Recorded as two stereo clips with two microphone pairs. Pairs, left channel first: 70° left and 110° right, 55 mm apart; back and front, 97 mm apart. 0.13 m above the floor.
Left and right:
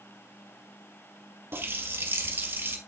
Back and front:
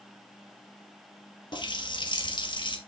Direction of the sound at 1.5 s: 150° right.